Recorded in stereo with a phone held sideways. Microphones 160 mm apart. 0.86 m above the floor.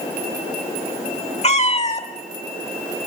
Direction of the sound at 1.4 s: 45° left (ahead or behind).